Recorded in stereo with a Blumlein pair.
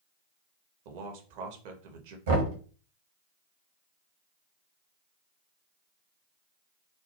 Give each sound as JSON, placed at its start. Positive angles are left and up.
{"t": 0.8, "sound": "a man speaking", "azimuth_deg": -50, "distance_m": 0.6}
{"t": 2.3, "sound": "knocking", "azimuth_deg": -60, "distance_m": 1.0}